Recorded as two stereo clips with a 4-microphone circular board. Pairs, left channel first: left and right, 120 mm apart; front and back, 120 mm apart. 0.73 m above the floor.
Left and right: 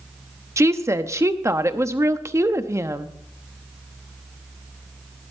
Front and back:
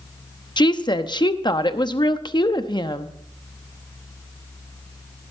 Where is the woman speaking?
35° right, 0.7 m.